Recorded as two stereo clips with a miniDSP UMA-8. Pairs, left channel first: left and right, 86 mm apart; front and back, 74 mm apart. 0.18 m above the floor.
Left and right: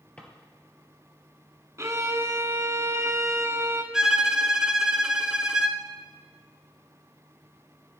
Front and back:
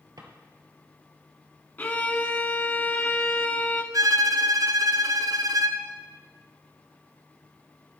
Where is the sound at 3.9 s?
170° right, 0.9 m.